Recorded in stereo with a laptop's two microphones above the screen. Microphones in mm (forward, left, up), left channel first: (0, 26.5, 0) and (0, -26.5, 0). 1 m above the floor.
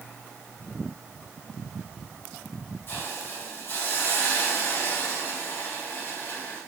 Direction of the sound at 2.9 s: 45° left (ahead or behind).